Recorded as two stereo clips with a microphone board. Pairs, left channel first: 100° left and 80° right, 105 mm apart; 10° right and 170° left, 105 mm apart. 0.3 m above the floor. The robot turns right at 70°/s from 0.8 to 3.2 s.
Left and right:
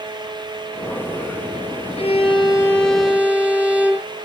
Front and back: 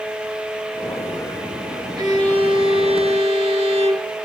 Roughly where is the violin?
Behind left.